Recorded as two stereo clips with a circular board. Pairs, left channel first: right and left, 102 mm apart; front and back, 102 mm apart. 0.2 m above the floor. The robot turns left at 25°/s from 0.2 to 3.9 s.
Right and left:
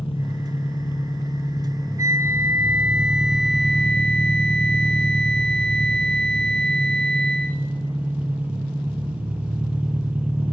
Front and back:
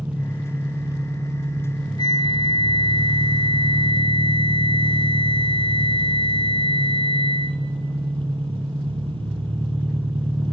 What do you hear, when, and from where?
0.0 s an engine running: 105° right, 1.1 m; by 10.5 s 165° left, 1.1 m
2.0 s a flute: 35° left, 1.3 m; by 7.6 s 10° right, 1.3 m